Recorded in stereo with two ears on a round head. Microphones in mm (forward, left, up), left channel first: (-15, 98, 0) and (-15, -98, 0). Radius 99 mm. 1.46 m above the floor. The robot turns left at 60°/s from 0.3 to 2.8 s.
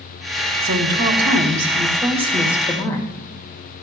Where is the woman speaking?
60° right, 2.0 m; by 3.1 s 170° left, 2.0 m.